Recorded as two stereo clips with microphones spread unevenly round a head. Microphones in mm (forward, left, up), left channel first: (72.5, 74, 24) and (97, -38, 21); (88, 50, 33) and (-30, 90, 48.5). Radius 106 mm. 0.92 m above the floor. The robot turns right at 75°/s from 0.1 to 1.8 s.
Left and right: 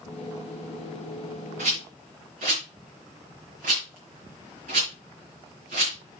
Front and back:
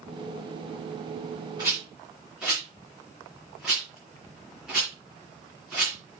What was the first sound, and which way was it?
A rattle, 130° right.